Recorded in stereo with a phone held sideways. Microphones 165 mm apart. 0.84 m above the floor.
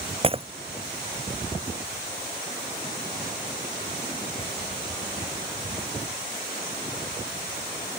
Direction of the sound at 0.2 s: 35° right (ahead or behind).